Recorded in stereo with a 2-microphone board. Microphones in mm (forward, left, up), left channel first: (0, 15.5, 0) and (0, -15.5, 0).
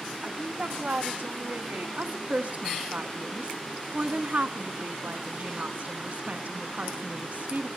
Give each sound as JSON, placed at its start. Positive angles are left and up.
{"t": 0.2, "sound": "a woman speaking", "side_deg": -50, "distance_m": 1.9}
{"t": 2.0, "sound": "a woman speaking", "side_deg": -50, "distance_m": 1.4}